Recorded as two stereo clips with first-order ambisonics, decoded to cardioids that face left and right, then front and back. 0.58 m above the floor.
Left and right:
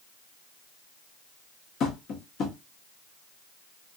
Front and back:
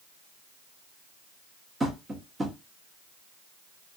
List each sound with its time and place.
1.8 s tapping: 110° left, 0.8 m